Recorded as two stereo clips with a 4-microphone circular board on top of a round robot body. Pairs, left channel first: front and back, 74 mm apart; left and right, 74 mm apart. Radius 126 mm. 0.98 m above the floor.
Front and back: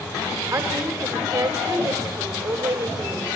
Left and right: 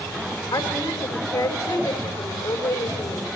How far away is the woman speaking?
About 3.5 m.